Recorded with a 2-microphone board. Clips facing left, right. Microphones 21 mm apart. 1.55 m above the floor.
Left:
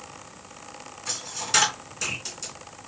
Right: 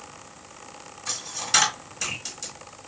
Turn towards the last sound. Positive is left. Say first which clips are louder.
# right 2 dB
turn(degrees=0)  # may be behind; listen again after turning